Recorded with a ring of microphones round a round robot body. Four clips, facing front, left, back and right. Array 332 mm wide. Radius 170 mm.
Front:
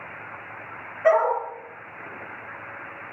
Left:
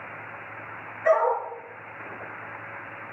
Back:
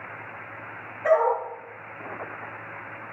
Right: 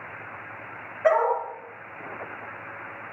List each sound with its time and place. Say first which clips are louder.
1.0 s a dog barking: even, front 1 dB; 50° right, 4.5 m